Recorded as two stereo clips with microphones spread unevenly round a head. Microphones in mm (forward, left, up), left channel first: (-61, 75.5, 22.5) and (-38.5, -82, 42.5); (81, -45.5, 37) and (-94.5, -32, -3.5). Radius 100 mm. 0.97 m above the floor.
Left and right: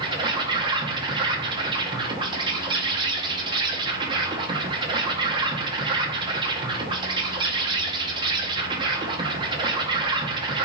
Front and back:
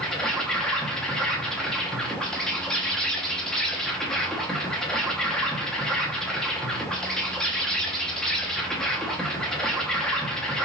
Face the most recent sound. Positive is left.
turn(degrees=-115)